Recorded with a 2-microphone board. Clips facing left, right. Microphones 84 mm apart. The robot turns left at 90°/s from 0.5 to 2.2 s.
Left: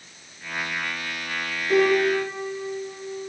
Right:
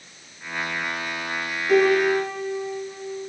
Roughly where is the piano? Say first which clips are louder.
Right 2 dB; right.